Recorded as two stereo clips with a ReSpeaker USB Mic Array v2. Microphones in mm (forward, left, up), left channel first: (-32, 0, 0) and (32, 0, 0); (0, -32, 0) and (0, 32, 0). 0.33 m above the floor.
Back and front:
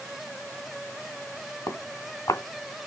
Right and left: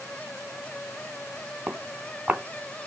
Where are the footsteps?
160° left, 1.7 m.